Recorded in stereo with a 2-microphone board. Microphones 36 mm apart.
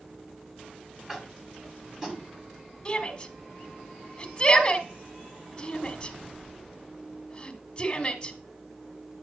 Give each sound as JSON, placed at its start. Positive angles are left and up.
{"t": 1.1, "sound": "tapping", "side_deg": -15, "distance_m": 1.7}
{"t": 2.9, "sound": "a shout", "side_deg": 25, "distance_m": 1.3}